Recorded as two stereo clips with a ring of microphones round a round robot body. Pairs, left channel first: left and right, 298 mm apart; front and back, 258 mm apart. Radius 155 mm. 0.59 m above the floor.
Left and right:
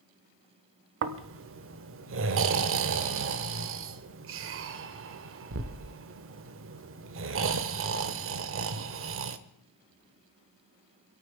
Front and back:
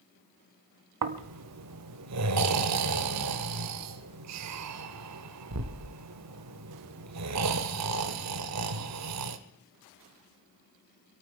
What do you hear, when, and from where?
1.0 s snoring: 140° right, 0.8 m